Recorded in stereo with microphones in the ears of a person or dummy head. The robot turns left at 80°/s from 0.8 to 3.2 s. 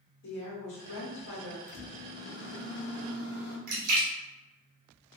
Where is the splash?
55° right (ahead or behind), 1.2 m.